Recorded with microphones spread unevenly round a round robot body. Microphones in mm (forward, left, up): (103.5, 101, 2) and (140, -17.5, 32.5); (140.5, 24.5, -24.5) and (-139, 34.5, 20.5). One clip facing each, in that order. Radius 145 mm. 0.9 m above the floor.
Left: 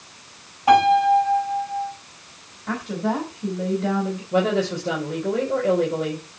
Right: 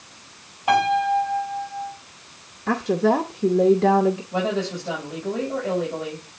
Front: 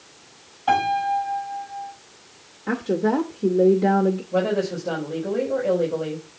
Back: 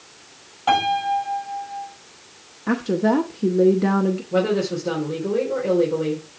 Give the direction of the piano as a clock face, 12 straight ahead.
7 o'clock.